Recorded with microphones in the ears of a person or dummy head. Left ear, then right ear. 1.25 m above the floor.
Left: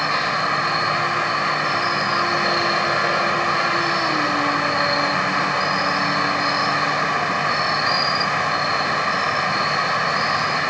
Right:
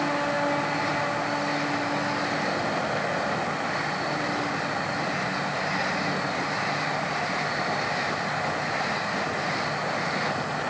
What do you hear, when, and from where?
0.0 s an insect: 55° left (ahead or behind)